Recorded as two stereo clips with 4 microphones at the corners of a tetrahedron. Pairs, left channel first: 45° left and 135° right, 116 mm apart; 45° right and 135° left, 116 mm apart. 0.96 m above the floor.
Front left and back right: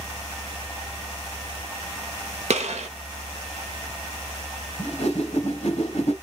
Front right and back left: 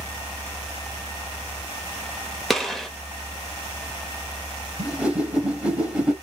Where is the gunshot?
135° right, 1.0 m.